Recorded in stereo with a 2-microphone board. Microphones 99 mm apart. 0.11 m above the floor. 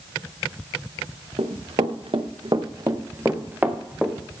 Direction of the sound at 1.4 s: 85° right.